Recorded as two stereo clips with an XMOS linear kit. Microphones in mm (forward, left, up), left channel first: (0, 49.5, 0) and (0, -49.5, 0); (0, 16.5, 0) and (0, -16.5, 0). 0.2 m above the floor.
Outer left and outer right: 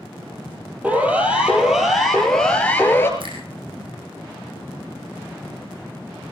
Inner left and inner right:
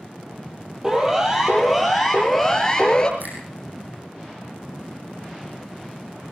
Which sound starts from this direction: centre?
A siren, at 0.8 s.